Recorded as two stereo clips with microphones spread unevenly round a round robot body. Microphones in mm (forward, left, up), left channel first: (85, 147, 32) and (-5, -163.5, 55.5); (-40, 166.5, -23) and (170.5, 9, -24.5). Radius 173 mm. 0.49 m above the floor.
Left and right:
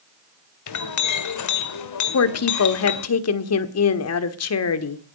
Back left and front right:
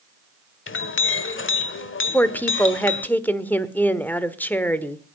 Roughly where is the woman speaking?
Ahead left.